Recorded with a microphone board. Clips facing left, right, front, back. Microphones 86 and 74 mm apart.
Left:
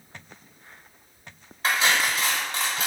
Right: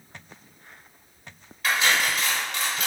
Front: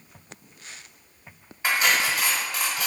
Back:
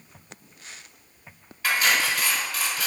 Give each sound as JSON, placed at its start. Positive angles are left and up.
{"t": 1.6, "sound": "cutlery clinking", "azimuth_deg": 55, "distance_m": 0.8}